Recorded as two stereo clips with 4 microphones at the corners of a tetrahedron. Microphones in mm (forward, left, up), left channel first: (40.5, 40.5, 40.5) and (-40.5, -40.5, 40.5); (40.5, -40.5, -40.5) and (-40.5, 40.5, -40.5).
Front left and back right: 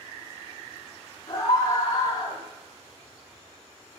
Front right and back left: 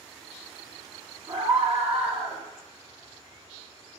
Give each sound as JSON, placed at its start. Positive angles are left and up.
{"t": 1.3, "sound": "a scream", "azimuth_deg": 100, "distance_m": 5.5}